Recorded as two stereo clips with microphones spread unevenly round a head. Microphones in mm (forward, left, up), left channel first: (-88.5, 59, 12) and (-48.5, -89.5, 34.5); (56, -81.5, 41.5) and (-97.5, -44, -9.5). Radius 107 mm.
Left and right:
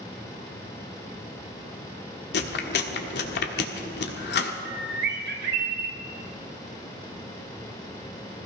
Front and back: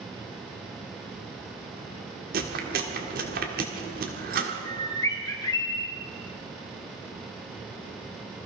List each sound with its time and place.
2.3 s chewing: 115° left, 1.5 m
4.7 s a bird: 80° right, 2.5 m